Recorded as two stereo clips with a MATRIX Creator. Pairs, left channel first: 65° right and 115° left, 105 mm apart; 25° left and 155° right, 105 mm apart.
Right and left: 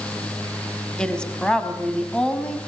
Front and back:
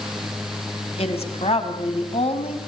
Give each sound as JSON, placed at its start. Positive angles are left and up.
{"t": 1.0, "sound": "a woman speaking", "azimuth_deg": 15, "distance_m": 3.5}